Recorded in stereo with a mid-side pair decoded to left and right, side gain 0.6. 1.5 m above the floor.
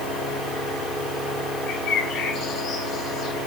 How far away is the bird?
About 9.5 m.